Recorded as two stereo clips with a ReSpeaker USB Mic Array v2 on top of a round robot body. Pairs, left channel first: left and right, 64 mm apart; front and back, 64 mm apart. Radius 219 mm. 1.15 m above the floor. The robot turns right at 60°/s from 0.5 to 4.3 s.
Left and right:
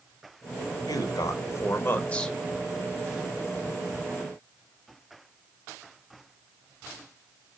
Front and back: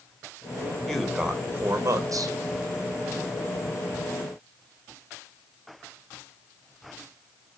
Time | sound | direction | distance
0.9 | a man speaking | 85° left | 3 m